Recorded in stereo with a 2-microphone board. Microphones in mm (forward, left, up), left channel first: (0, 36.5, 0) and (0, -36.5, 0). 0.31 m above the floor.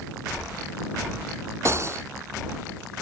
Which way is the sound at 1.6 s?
40° right (ahead or behind).